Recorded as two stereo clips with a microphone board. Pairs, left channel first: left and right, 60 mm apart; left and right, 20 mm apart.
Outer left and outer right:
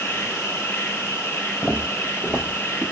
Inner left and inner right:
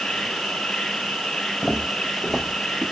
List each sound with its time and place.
0.0 s an insect: 40° left (ahead or behind), 1.0 m
1.6 s footsteps: 5° left (ahead or behind), 1.1 m; by 2.8 s 20° right (ahead or behind), 1.1 m